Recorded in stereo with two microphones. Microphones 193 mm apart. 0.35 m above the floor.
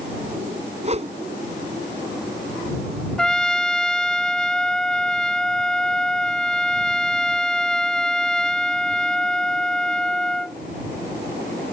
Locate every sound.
0.8 s a whoosh: 35° right (ahead or behind)
3.2 s a trumpet: 5° left (ahead or behind)